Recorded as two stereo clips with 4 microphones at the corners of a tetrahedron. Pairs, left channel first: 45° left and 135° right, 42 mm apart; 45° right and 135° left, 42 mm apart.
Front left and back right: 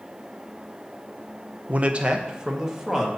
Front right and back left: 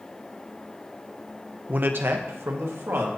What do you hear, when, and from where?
1.7 s a man speaking: straight behind, 0.6 m; by 3.1 s 150° left, 1.9 m